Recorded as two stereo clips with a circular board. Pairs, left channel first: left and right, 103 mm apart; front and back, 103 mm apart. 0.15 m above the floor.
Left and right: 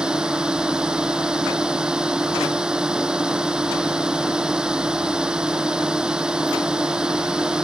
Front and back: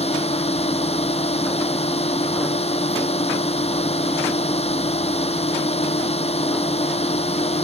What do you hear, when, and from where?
0.0 s a drone: 5° right